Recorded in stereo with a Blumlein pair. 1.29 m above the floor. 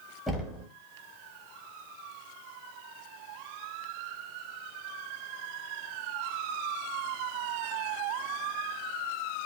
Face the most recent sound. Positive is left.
turn(degrees=0)